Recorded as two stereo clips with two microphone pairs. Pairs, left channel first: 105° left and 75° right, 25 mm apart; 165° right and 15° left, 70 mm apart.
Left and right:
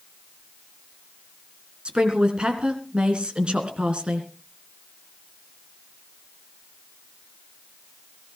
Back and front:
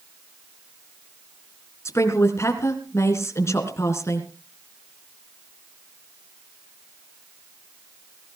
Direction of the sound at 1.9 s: 120° right.